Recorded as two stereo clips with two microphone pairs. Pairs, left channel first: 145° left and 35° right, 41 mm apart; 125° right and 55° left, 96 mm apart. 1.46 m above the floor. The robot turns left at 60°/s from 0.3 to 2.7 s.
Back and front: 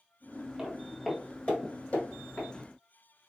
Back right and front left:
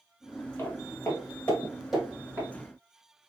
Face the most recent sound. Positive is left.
turn(degrees=90)